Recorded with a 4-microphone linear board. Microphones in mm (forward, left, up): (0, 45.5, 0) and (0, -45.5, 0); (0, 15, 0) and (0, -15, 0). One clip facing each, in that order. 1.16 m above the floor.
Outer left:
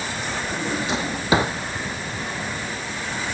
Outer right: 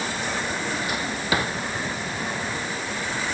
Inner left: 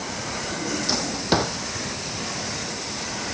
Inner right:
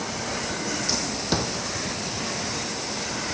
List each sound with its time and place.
0.5 s a drawer: 25° left (ahead or behind)